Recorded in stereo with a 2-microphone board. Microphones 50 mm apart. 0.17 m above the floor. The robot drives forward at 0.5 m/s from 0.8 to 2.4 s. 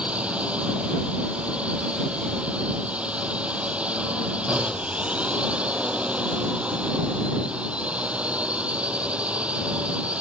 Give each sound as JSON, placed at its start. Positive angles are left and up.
{"t": 0.0, "sound": "a drone", "side_deg": -25}